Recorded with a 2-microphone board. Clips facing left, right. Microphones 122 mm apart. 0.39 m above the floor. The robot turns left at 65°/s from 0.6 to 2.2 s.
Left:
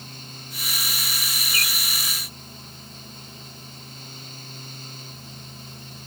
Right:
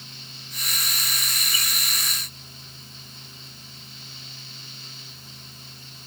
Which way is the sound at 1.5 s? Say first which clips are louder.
Left 5 dB; 75° left (ahead or behind).